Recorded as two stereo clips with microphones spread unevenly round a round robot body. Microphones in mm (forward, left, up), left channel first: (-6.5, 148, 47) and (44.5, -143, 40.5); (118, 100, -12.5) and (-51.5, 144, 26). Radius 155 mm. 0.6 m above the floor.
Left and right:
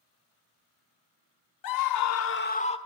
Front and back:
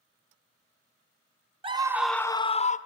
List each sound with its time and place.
1.6 s a scream: 100° left, 1.3 m; by 2.8 s 25° left, 1.6 m